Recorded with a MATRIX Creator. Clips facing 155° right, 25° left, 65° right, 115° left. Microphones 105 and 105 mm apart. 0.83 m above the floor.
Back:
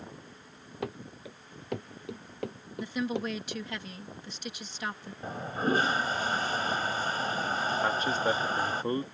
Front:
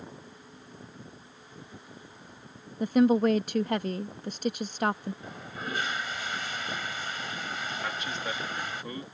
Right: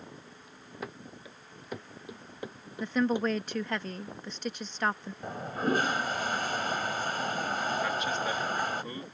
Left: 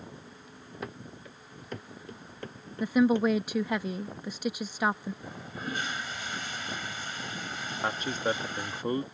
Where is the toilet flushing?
105° right.